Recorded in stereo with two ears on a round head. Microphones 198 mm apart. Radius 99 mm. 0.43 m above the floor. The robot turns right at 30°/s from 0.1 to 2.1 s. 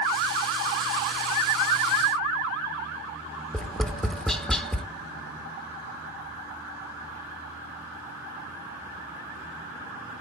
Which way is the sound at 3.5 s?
Centre (ahead or behind).